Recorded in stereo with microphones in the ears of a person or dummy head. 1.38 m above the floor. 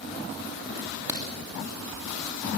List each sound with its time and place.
0.8 s a crack: 20° right (ahead or behind), 3 m